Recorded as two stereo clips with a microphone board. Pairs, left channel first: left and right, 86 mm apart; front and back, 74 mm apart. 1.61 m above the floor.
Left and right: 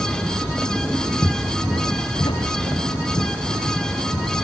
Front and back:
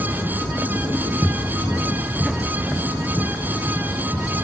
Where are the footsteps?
95° left.